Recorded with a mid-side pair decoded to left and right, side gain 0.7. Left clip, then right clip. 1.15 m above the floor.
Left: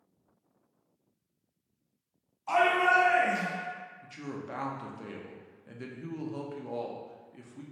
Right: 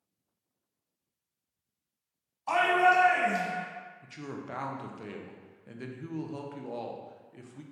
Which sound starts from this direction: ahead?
A woman speaking, at 4.0 s.